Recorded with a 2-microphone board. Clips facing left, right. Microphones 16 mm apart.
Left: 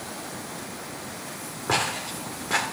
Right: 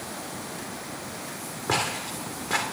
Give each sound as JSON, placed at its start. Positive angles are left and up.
{"t": 1.7, "sound": "footsteps", "side_deg": 0, "distance_m": 3.0}